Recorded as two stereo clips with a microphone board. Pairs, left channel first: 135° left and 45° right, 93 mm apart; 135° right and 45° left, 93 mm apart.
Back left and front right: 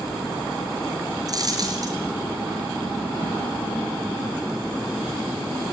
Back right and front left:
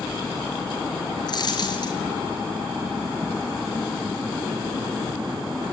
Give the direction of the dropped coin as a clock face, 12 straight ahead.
3 o'clock.